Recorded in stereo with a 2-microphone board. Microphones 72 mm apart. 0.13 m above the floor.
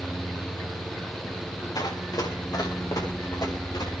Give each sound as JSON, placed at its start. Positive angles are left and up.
{"t": 1.8, "sound": "running footsteps", "side_deg": 60, "distance_m": 6.0}